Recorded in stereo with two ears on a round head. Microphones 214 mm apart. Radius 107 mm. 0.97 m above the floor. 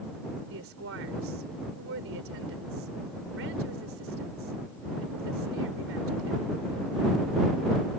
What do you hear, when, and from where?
0.5 s a woman speaking: 60° right (ahead or behind)